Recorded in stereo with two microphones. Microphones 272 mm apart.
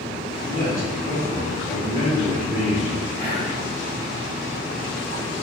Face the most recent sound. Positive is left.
turn(degrees=-20)  # may be behind; listen again after turning